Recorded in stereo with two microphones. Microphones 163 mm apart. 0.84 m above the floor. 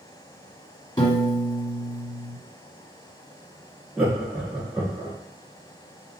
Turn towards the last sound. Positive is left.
turn(degrees=-5)  # may be behind; listen again after turning